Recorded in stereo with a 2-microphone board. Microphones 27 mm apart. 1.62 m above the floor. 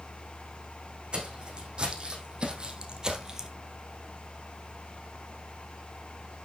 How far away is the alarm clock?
I don't hear an alarm clock.